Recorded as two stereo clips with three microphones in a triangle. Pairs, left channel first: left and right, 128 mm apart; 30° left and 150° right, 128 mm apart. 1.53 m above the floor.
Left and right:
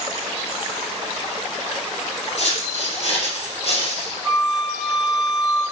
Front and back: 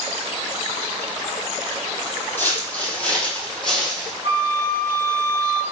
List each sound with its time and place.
2.4 s footsteps: 105° left, 3 m; by 4.1 s 120° left, 3.5 m
4.2 s a flute: straight behind, 2.5 m